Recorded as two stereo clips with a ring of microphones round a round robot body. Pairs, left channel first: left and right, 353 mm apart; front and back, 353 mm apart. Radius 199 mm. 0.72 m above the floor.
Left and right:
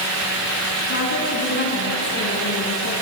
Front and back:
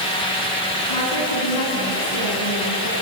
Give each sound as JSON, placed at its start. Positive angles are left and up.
{"t": 0.9, "sound": "a woman speaking", "azimuth_deg": 30, "distance_m": 9.0}